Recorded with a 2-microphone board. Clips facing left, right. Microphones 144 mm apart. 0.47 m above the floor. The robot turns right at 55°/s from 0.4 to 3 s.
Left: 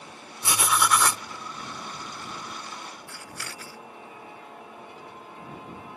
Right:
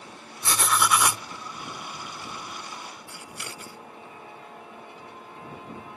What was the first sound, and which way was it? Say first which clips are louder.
Writing: even; 160° left.